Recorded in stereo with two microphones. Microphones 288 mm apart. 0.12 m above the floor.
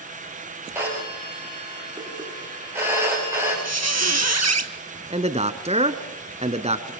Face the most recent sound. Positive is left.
turn(degrees=-20)  # may be behind; listen again after turning